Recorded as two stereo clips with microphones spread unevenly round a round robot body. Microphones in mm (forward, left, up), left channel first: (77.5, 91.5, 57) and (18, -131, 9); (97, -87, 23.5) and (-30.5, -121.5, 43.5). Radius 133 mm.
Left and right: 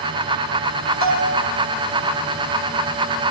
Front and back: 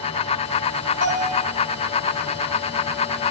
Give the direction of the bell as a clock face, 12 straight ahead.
5 o'clock.